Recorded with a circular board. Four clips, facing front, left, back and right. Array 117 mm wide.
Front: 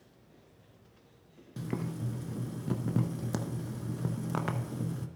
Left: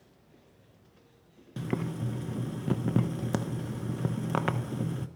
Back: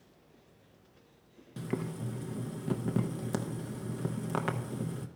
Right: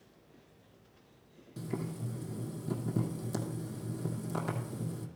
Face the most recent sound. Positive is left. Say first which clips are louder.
# left 5 dB, even
turn(degrees=100)